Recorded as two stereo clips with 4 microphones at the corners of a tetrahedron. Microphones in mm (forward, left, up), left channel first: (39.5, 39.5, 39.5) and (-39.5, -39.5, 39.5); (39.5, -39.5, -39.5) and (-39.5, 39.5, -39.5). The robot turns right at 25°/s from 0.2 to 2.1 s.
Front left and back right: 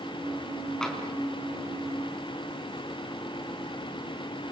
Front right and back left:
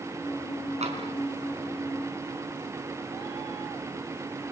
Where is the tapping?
130° left, 4.5 m; by 1.0 s 135° left, 4.5 m.